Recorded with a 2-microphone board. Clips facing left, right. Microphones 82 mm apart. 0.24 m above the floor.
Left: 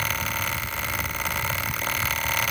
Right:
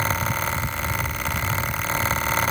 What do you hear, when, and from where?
Only background noise.